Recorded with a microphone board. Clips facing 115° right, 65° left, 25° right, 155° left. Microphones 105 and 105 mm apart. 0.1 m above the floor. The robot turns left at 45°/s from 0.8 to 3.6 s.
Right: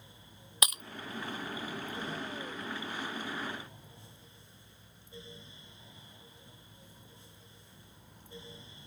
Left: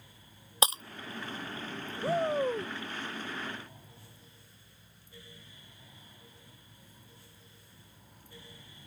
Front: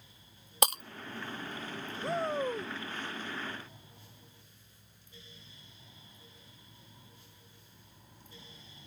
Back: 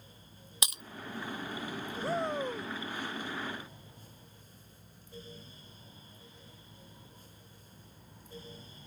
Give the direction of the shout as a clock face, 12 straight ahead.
10 o'clock.